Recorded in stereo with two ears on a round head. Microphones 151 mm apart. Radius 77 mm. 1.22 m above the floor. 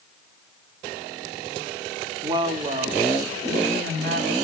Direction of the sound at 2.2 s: 25° right (ahead or behind).